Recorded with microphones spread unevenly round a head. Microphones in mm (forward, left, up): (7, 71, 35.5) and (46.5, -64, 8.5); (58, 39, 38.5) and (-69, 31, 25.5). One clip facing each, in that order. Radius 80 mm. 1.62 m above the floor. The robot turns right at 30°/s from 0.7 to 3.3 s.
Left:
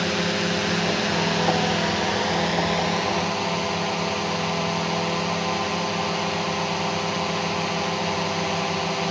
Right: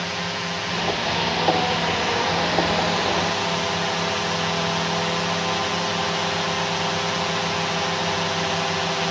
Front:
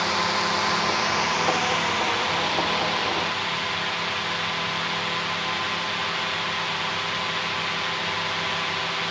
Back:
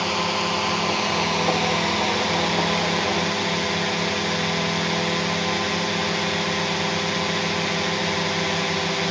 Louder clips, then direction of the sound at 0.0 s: Left 5 dB, back 1 dB; 120° left.